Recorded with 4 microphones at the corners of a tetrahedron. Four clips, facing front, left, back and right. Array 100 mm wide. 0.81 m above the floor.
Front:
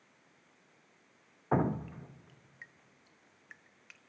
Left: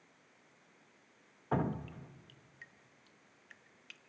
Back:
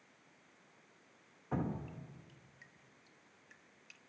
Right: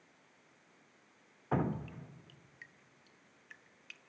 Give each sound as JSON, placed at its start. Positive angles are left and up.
{"t": 1.5, "sound": "dripping", "azimuth_deg": 0, "distance_m": 0.8}